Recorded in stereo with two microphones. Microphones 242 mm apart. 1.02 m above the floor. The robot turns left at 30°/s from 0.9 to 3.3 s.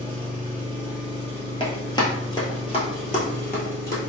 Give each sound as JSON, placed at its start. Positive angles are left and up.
{"t": 0.0, "sound": "an engine running", "azimuth_deg": 170, "distance_m": 1.1}
{"t": 1.6, "sound": "running footsteps", "side_deg": 20, "distance_m": 1.1}